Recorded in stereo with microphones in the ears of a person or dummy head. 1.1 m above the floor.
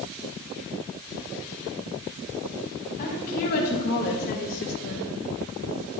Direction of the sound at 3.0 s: 45° left (ahead or behind).